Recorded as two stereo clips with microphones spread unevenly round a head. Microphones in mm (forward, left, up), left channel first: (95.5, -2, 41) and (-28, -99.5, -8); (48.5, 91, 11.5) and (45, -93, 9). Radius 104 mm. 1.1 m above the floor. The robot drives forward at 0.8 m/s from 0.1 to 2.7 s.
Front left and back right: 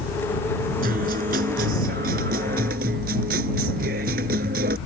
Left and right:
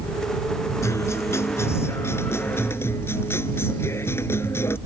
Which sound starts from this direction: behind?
A guitar, at 0.8 s.